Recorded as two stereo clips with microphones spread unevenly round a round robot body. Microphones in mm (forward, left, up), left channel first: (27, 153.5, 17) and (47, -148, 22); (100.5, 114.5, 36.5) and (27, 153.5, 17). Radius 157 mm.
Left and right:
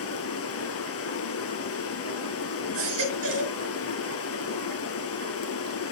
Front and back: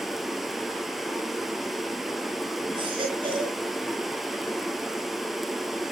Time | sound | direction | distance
0.0 | running water | 55° left | 1.8 m
2.7 | a baby crying | 135° right | 4.5 m